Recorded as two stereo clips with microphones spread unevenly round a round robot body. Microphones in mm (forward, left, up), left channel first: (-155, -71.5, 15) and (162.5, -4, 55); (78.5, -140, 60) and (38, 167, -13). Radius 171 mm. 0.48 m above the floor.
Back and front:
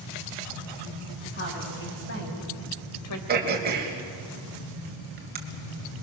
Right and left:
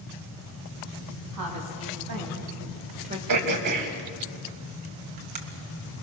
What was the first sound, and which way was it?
A woman speaking, 130° left.